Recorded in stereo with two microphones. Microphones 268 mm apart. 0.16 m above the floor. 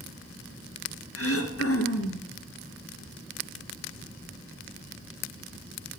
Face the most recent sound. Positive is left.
turn(degrees=60)  # may be behind; listen again after turning